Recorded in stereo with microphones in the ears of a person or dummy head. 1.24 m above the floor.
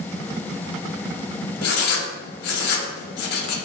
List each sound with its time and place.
1.6 s writing: 55° left (ahead or behind), 0.7 m